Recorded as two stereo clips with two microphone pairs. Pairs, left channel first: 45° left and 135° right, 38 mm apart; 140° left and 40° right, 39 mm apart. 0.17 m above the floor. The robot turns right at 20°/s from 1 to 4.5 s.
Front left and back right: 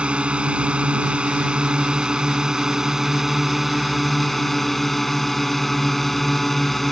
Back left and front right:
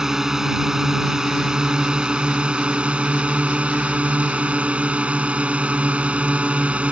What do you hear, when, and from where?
0.0 s a drone: 105° right; by 6.9 s 35° right